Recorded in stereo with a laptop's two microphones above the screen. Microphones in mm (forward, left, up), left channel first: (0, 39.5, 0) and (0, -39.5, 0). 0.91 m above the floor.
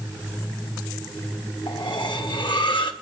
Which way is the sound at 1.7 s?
75° left (ahead or behind).